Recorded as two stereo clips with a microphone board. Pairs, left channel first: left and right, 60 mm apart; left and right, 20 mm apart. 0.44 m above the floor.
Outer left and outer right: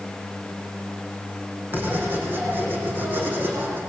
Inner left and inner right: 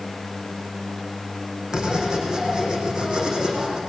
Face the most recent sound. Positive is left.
turn(degrees=-35)  # may be behind; listen again after turning